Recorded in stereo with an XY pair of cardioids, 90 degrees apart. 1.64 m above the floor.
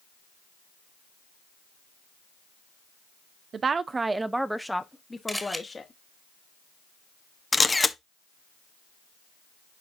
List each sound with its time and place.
3.5 s a woman speaking: 55° right, 0.9 m; by 5.9 s 30° left, 1.5 m
5.3 s a camera shutter: straight ahead, 1.8 m
7.5 s a camera shutter: 20° left, 0.9 m